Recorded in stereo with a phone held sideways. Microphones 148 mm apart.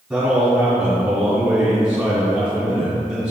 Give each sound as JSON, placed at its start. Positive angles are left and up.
{"t": 0.1, "sound": "a man speaking", "side_deg": -5, "distance_m": 2.0}